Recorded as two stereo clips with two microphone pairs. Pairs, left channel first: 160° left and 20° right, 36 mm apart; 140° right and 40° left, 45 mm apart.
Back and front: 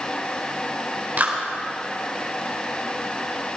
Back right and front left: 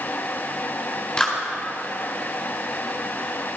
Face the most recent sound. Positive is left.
turn(degrees=-65)